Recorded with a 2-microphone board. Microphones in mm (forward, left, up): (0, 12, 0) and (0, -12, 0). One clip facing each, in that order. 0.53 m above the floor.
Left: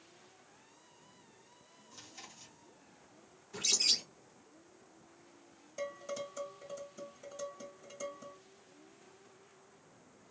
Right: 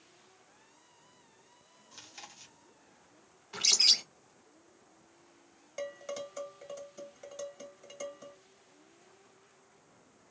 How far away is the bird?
About 0.8 m.